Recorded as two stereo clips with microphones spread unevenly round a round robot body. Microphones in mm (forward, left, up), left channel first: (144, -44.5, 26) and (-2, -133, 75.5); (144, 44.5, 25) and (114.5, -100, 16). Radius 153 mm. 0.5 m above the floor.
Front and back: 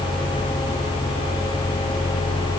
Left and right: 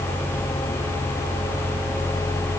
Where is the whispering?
No whispering in this recording.